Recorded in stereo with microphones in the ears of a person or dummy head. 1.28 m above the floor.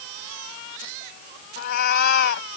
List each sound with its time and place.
1.6 s a cat meowing: 55° left (ahead or behind)